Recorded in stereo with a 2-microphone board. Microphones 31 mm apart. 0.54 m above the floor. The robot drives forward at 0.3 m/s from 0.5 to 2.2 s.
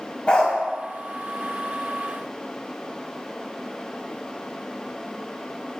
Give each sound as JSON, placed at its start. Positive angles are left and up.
{"t": 0.3, "sound": "a dog barking", "side_deg": 35, "distance_m": 0.8}